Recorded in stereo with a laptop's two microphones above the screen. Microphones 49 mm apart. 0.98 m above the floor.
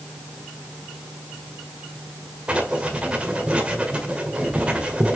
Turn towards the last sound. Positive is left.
turn(degrees=-20)  # may be behind; listen again after turning